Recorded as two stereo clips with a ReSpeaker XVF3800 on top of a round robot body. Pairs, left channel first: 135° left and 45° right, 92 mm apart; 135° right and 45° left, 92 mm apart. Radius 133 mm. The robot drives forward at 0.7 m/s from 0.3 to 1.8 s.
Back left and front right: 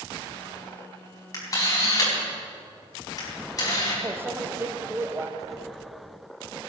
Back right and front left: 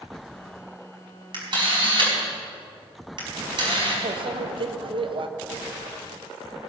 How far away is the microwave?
About 1.0 m.